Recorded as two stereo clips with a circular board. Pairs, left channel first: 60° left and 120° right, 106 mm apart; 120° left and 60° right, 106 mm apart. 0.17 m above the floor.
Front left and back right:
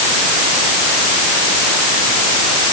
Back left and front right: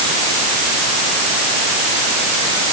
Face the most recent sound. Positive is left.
No sound to turn to.